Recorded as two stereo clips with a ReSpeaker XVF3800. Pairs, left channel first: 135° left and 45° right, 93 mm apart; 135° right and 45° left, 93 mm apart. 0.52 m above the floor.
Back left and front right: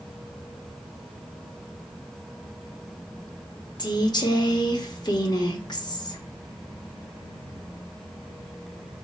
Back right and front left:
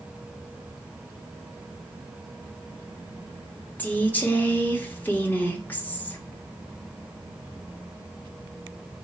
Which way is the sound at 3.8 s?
160° left.